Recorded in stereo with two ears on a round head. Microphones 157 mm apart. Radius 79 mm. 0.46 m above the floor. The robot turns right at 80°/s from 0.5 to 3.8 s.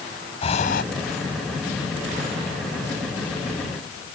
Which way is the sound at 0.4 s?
35° left (ahead or behind).